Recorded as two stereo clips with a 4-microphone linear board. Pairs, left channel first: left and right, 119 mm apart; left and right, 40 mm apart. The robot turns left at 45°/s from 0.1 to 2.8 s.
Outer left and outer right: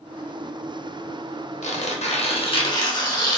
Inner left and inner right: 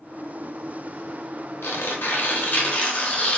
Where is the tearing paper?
95° left, 0.6 m; by 3.4 s 40° left, 0.6 m.